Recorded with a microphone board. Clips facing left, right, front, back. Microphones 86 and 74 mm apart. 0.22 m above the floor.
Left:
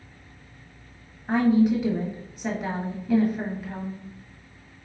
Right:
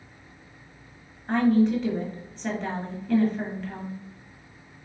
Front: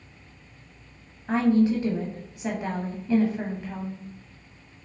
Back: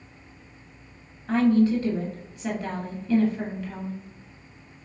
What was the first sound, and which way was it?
A woman speaking, 25° left.